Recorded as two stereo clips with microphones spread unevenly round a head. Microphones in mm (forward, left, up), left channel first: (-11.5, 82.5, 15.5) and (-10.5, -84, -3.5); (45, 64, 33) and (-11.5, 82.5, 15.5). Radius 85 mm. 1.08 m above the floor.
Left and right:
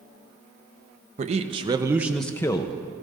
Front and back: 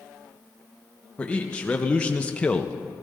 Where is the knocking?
No knocking in this recording.